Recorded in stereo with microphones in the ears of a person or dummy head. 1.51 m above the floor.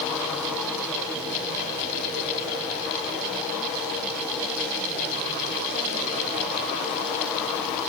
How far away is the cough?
I don't hear a cough.